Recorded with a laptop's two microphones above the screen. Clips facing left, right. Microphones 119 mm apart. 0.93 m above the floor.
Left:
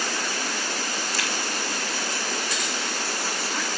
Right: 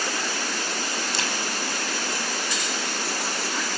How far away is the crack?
About 5 m.